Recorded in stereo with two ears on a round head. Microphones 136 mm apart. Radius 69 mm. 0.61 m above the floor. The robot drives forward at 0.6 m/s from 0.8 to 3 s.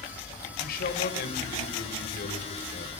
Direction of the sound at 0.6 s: 65° left (ahead or behind).